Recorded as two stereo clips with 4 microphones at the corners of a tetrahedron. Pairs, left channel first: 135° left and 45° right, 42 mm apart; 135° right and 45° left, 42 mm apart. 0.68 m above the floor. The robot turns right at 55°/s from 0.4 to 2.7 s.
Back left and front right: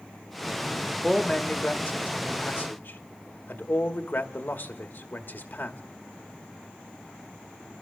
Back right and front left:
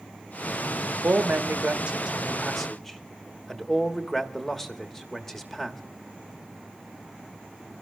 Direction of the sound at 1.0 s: 55° left.